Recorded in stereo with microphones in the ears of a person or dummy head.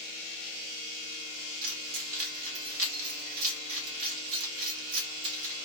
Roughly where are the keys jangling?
Right.